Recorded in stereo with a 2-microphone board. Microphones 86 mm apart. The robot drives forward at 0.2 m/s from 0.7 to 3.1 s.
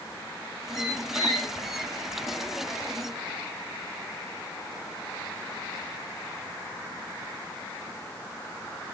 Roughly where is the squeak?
Left.